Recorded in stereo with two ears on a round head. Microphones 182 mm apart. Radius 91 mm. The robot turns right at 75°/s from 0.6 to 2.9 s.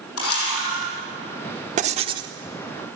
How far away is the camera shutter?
About 6 m.